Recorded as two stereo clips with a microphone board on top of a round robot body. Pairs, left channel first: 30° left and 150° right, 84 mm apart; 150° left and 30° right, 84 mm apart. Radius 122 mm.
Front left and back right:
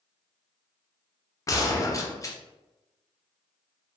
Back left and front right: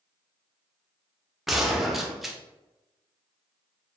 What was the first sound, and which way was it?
A gunshot, 60° left.